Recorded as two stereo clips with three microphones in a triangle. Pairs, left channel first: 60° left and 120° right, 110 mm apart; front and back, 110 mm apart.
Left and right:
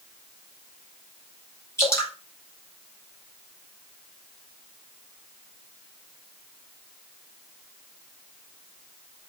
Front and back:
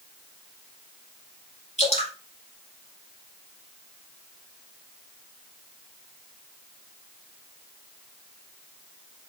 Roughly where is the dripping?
Ahead.